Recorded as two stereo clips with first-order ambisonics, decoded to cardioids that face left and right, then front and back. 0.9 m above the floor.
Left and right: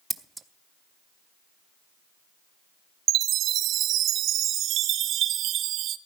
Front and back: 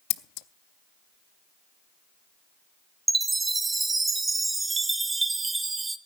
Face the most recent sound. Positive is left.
turn(degrees=-105)